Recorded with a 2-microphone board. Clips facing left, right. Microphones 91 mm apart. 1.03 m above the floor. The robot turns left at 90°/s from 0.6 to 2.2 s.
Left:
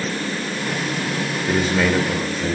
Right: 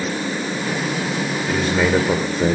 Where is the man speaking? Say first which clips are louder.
Even; 25° left, 1.9 m; by 2.5 s 45° right, 1.9 m.